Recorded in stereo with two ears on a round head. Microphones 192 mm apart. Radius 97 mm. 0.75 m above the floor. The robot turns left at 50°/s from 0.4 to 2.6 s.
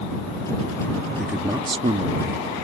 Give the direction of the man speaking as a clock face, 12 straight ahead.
12 o'clock.